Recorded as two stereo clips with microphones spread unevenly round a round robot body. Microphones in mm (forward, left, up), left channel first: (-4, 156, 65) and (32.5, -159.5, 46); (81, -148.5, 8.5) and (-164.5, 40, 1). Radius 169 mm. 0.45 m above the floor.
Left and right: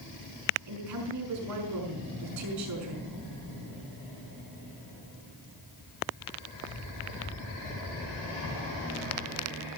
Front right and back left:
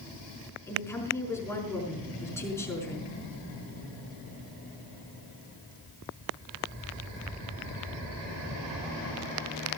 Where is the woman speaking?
120° right, 5.5 m.